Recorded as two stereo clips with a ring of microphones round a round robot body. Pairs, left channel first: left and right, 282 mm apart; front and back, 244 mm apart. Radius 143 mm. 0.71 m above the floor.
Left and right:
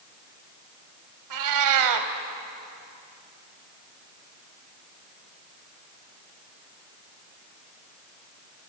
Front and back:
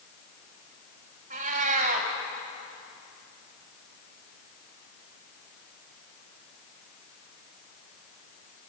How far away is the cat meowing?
About 1.7 m.